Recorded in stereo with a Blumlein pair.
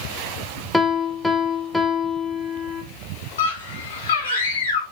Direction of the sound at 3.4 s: 70° left.